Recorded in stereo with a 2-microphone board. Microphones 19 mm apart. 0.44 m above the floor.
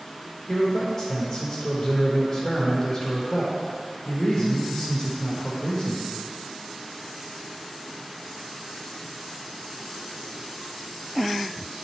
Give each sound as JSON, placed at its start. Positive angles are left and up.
{"t": 0.5, "sound": "a man speaking", "side_deg": 5, "distance_m": 1.4}